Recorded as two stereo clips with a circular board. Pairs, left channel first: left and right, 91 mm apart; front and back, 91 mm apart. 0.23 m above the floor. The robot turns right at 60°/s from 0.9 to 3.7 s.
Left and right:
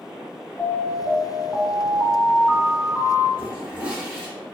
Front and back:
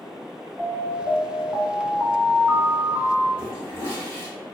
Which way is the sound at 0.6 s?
120° left.